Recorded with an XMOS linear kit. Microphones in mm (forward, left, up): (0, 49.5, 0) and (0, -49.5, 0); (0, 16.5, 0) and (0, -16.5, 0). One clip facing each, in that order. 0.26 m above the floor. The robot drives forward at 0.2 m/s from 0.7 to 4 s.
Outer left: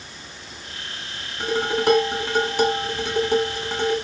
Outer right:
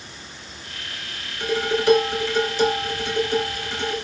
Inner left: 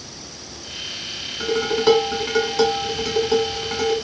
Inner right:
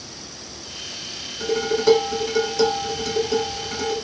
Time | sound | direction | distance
1.4 | dishes clattering | 55° left (ahead or behind) | 1.6 m